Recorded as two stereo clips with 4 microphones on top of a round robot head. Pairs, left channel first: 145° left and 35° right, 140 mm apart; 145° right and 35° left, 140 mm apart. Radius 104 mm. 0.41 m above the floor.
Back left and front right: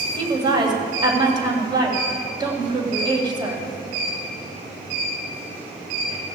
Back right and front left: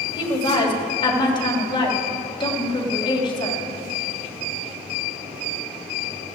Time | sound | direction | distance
0.1 | a woman speaking | 90° right | 3 m